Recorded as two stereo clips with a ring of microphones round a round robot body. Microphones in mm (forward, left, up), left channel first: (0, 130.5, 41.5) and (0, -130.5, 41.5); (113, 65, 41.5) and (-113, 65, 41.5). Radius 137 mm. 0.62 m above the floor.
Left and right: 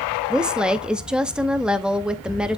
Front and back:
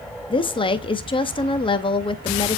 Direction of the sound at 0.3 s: 10° right.